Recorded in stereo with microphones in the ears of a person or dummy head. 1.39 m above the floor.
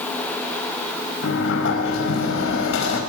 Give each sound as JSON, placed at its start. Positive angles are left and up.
{"t": 1.2, "sound": "a sliding door", "side_deg": 65, "distance_m": 5.0}